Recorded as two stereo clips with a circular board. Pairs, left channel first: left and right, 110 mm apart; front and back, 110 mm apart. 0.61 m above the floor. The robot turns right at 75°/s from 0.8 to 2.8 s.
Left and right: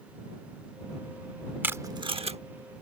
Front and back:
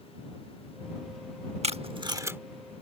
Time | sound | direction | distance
1.6 | tape being pulled | 165° right | ?